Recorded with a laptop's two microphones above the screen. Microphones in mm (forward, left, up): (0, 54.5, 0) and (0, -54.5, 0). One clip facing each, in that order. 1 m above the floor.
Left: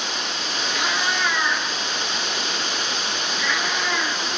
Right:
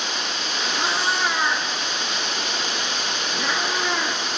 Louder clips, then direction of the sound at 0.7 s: Right 1 dB; 35° right (ahead or behind).